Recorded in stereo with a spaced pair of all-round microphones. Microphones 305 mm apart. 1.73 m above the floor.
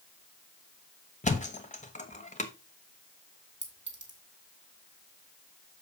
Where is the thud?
25° left (ahead or behind), 1.0 m.